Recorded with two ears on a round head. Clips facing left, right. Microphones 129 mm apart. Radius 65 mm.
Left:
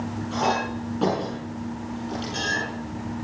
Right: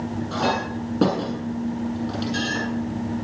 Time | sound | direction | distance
0.3 | a clink | 55° right (ahead or behind) | 8.5 m